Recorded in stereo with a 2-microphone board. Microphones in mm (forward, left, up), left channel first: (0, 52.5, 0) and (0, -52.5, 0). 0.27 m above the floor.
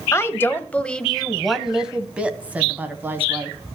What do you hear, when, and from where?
0.1 s a woman speaking: 25° left (ahead or behind), 1.0 m; by 3.6 s 20° right (ahead or behind), 2.0 m